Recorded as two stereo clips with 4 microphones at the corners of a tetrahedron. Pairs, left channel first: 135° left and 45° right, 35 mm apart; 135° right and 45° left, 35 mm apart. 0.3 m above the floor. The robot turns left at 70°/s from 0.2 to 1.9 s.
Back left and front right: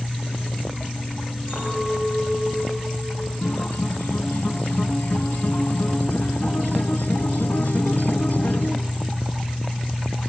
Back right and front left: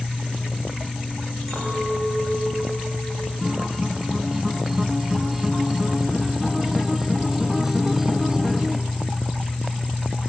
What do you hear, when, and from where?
1.5 s a clink: 140° left, 10 m; by 3.3 s 110° left, 10 m
3.4 s a guitar: 125° left, 0.9 m